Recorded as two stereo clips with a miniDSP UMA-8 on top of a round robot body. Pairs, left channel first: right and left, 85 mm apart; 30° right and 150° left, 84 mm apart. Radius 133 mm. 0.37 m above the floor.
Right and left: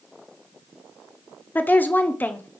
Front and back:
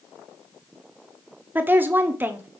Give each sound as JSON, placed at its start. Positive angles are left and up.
{"t": 1.6, "sound": "a woman speaking", "azimuth_deg": -150, "distance_m": 1.1}